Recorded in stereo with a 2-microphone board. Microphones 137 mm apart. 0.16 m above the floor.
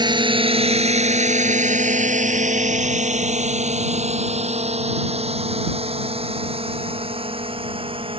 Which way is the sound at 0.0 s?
30° right (ahead or behind).